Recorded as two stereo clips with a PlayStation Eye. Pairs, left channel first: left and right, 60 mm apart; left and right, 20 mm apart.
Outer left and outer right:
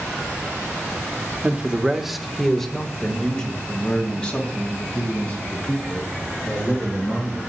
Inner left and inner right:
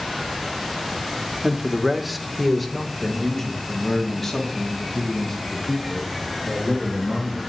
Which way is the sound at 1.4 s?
25° right (ahead or behind).